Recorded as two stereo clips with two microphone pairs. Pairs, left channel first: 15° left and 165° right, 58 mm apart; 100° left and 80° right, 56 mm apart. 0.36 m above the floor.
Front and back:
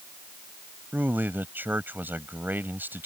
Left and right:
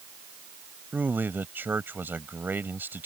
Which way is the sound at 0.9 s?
120° right.